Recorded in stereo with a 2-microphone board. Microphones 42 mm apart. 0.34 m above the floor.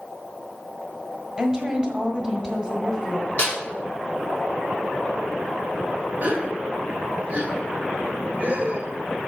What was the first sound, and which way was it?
A woman speaking, 20° right (ahead or behind).